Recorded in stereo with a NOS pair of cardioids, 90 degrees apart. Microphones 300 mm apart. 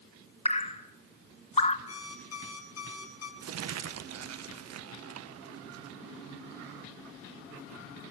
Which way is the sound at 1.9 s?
55° left.